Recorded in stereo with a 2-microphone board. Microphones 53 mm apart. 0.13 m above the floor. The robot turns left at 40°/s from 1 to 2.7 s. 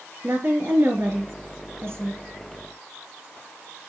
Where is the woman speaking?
65° right, 2.5 m; by 2.2 s 115° right, 2.5 m.